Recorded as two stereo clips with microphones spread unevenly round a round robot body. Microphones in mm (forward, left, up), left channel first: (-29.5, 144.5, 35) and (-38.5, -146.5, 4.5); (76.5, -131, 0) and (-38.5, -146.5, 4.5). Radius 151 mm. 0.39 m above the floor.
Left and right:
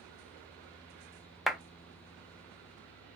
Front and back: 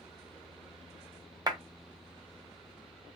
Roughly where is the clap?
Behind.